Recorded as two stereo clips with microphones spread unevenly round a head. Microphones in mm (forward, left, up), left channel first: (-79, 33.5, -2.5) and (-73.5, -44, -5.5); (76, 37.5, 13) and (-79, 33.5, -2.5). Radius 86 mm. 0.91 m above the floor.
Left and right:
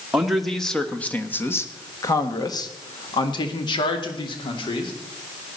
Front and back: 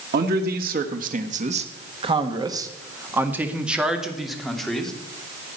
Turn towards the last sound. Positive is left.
turn(degrees=90)